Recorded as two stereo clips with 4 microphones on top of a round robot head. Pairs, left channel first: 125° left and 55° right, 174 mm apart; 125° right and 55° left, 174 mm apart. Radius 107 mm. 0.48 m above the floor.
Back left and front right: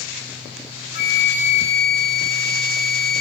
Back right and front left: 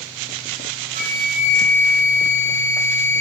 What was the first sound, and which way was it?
A flute, 100° left.